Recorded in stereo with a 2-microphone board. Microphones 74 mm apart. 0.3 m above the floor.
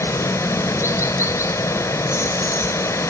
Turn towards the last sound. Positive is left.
turn(degrees=45)  # may be behind; listen again after turning